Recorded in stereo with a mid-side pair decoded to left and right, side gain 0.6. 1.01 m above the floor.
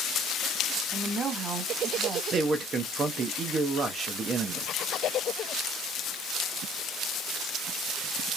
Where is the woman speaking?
30° right, 1.7 m.